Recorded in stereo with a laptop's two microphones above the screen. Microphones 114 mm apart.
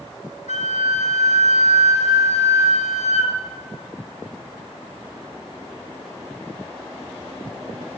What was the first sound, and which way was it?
A flute, 75° left (ahead or behind).